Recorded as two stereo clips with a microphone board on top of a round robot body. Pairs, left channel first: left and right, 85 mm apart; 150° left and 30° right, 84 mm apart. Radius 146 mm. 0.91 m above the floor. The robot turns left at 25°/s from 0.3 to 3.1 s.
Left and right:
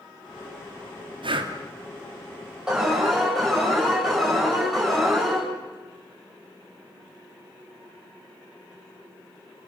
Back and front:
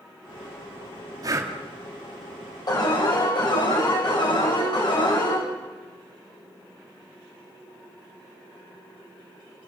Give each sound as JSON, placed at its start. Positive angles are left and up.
{"t": 1.2, "sound": "breathing", "azimuth_deg": -80, "distance_m": 2.5}
{"t": 2.7, "sound": "an alarm", "azimuth_deg": -170, "distance_m": 9.0}